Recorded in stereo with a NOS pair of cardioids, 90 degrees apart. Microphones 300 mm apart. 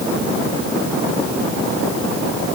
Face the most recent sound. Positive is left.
No sound to turn to.